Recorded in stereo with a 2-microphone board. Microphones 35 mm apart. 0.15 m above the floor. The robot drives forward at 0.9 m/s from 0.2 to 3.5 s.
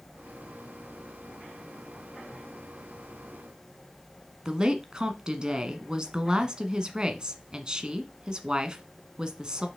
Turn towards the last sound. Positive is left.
turn(degrees=-25)  # may be behind; listen again after turning